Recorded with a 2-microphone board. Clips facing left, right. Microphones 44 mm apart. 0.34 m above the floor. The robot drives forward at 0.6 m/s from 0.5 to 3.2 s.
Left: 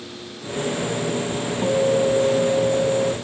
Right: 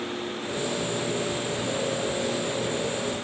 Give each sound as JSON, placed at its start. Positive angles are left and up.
{"t": 1.6, "sound": "a guitar", "side_deg": 50}